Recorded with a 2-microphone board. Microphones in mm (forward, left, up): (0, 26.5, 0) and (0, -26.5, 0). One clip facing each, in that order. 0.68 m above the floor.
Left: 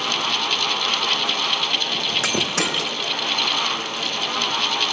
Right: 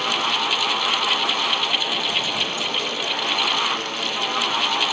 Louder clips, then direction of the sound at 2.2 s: Left 3 dB; 75° left (ahead or behind).